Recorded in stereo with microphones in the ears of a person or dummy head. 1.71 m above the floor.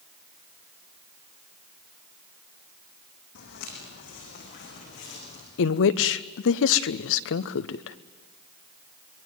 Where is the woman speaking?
70° left (ahead or behind), 1.0 m.